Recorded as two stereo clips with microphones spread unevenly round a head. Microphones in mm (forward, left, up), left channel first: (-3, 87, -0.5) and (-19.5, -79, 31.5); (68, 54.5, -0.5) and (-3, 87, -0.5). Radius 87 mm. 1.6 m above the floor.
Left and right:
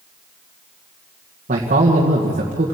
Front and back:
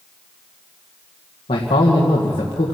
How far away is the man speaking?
About 1.9 m.